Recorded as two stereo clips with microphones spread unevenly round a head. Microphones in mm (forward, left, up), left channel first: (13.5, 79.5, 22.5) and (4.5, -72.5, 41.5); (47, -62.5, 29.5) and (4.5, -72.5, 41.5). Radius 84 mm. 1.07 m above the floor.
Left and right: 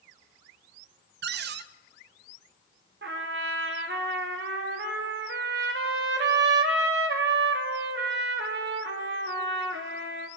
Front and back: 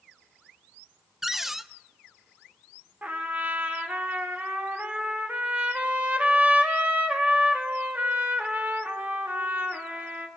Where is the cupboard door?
80° right, 0.5 m.